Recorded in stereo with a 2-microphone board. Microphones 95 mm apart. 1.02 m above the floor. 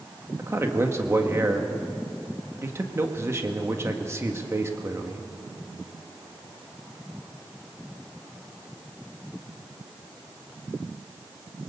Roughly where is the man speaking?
Right.